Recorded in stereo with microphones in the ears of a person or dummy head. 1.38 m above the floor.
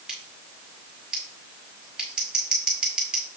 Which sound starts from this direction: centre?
Scissors, at 0.1 s.